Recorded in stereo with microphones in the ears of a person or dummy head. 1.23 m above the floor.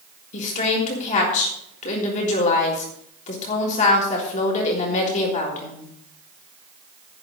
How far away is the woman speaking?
About 3.5 m.